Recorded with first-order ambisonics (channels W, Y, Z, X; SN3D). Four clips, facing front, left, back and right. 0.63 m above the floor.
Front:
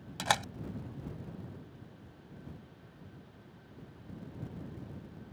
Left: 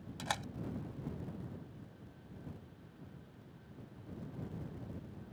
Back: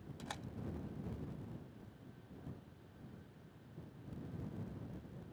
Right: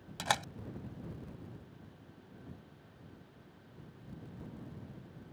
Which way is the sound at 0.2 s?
25° right.